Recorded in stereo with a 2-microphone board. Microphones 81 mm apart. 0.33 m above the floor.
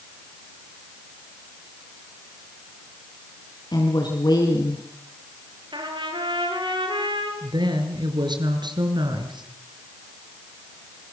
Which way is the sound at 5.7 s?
75° right (ahead or behind).